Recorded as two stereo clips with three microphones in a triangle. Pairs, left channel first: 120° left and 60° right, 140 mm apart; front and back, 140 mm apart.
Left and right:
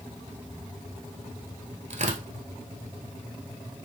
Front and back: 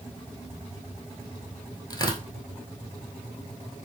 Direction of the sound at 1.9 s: 55° right.